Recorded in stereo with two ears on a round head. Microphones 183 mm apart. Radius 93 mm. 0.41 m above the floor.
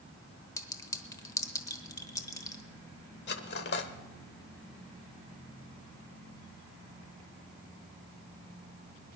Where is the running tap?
I don't hear a running tap.